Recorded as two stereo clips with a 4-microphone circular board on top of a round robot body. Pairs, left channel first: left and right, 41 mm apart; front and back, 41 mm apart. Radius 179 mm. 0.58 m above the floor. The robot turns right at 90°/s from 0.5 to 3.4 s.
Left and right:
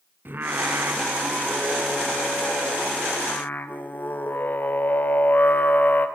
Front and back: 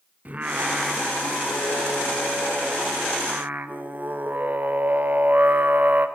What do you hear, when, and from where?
0.2 s singing: 130° right, 3 m; by 6.1 s 135° left, 3 m